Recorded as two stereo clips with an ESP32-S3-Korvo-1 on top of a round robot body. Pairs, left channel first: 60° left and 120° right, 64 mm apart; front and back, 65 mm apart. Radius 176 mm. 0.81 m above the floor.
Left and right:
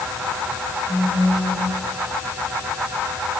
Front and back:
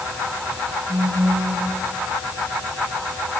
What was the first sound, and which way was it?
A phone buzzing, 175° right.